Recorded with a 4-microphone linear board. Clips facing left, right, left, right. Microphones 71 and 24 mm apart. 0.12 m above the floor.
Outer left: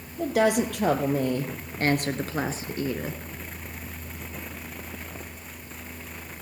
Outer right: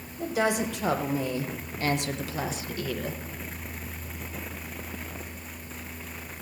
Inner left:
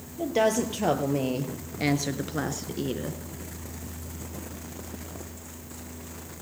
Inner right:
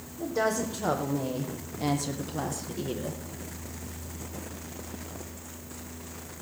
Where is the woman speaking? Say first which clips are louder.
Outer left 4 dB, inner left 4 dB; 65° left (ahead or behind), 2.5 m; by 3.2 s 20° left (ahead or behind), 1.1 m.